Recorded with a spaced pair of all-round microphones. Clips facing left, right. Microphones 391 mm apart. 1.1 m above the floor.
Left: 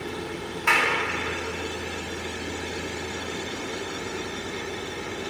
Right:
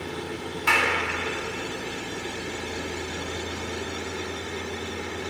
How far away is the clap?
About 1.4 m.